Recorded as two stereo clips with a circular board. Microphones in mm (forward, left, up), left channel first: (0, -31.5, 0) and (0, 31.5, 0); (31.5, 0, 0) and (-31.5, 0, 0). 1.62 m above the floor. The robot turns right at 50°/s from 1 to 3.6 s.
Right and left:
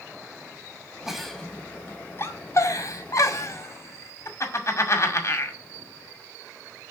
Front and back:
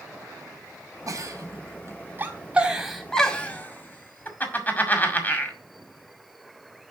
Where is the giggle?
175° left, 1.9 m; by 5.6 s 60° right, 1.9 m.